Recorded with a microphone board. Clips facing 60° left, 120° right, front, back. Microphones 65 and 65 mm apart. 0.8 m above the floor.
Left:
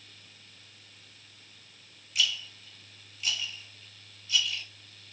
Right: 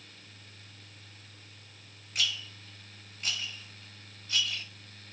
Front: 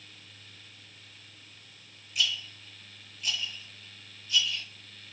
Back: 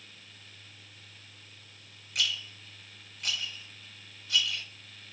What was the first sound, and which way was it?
A rattle, 165° right.